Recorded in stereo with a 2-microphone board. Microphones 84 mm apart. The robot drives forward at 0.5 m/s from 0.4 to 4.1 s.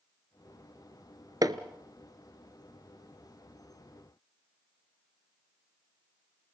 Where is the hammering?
50° right (ahead or behind), 1.0 m; by 1.6 s 45° right (ahead or behind), 1.1 m.